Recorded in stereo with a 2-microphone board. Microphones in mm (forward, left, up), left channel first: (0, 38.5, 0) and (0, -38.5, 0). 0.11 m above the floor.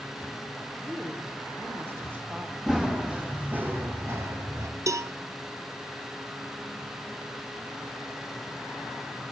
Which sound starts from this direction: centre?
Running footsteps, at 2.7 s.